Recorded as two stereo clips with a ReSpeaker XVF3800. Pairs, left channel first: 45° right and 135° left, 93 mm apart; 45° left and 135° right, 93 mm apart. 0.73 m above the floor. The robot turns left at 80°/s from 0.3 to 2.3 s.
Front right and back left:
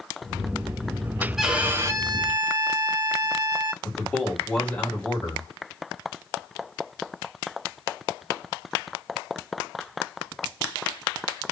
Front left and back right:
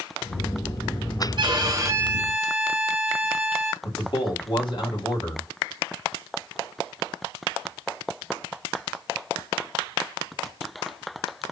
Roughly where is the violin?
Behind right.